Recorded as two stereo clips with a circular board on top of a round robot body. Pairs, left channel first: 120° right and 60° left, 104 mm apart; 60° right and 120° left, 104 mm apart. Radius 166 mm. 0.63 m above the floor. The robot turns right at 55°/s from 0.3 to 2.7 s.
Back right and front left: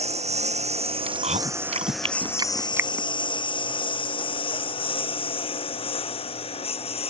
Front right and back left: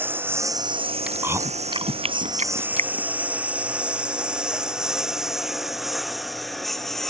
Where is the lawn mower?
50° left; by 7.1 s 150° right.